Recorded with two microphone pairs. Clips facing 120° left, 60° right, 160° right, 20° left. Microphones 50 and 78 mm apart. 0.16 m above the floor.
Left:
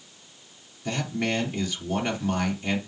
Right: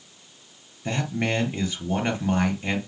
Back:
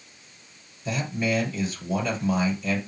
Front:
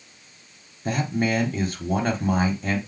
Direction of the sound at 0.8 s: Straight ahead.